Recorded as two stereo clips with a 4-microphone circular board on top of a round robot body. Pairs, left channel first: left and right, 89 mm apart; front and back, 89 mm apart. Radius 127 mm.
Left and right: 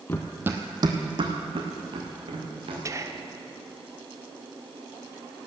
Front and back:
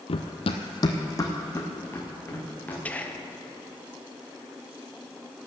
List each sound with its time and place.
0.1 s running footsteps: 25° left, 0.8 m; by 2.8 s 70° right, 4 m
2.9 s whispering: 65° right, 1.4 m